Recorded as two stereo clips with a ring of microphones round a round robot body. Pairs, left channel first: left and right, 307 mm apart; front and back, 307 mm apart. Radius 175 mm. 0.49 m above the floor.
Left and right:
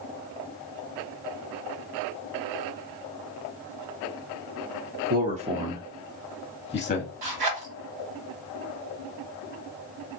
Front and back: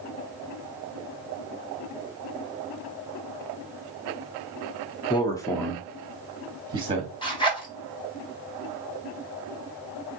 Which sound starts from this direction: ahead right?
A man speaking, at 5.1 s.